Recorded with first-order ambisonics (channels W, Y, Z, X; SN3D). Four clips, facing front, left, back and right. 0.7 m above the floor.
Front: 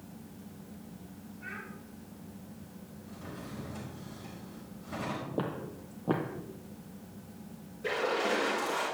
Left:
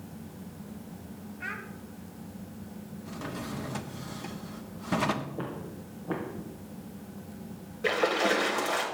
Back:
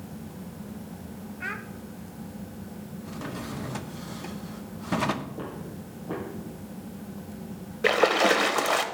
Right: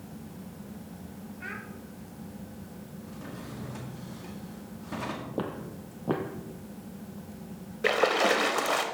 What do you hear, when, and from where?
1.4 s a child speaking: 165° left, 1.0 m
3.0 s a drawer: 145° left, 0.6 m
5.4 s footsteps: 55° right, 1.2 m
7.8 s a splash: 160° right, 0.7 m